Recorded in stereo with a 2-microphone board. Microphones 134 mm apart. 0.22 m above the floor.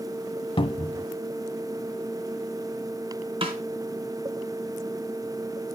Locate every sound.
0.6 s a cupboard door: 40° left (ahead or behind), 0.9 m
3.4 s a snare drum: 40° right (ahead or behind), 2.5 m